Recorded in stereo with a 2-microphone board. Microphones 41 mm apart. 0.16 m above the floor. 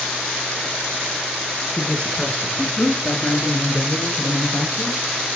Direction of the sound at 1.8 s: 30° left (ahead or behind).